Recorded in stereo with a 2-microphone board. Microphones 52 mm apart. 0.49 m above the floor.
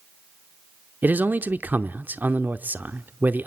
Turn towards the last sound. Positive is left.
turn(degrees=-35)  # may be behind; listen again after turning